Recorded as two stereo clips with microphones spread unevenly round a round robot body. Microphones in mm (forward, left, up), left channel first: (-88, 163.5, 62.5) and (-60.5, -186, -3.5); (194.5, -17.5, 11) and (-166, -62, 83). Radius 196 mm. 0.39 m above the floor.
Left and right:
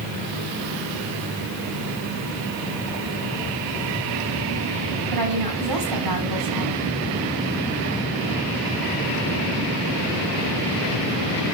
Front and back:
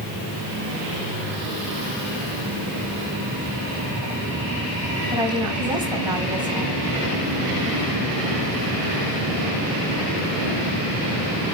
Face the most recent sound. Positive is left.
turn(degrees=-90)